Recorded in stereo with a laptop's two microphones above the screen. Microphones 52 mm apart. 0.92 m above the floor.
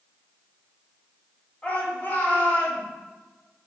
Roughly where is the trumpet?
No trumpet in this recording.